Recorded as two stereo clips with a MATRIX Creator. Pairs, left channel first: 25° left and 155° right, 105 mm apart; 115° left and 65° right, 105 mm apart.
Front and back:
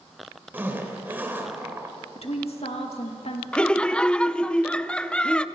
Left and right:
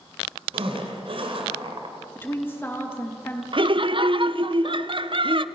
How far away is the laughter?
About 0.6 m.